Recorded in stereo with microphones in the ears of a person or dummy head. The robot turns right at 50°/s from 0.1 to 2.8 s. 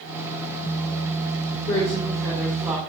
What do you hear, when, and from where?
1.7 s a woman speaking: 130° left, 2.5 m; by 2.8 s 175° right, 2.5 m